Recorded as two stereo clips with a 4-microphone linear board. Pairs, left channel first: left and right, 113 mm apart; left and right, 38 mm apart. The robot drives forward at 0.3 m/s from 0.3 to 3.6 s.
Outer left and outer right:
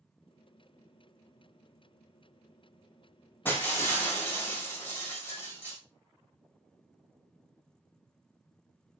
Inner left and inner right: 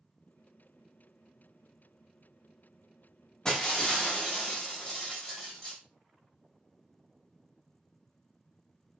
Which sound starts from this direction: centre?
Breaking glass, at 3.5 s.